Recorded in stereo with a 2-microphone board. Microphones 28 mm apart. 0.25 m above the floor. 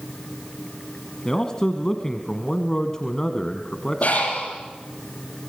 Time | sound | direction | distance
1.2 | a man speaking | 20° left (ahead or behind) | 1.7 m
4.0 | breathing | 55° left (ahead or behind) | 8 m